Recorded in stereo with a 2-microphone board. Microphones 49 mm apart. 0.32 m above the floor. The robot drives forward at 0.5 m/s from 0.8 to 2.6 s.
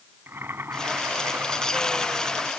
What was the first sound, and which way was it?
Boiling, 55° right (ahead or behind).